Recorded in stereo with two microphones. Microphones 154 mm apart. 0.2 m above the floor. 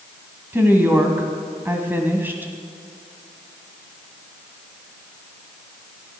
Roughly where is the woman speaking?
Centre.